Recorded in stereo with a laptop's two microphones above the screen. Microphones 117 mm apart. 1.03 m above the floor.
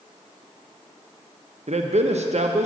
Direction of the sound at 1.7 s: 65° right (ahead or behind).